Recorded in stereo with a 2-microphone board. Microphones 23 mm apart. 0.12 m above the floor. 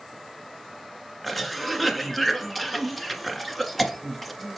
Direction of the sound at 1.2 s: 5° left (ahead or behind).